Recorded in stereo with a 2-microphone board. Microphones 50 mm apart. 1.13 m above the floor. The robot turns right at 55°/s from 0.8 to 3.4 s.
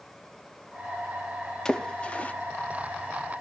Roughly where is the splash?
Centre.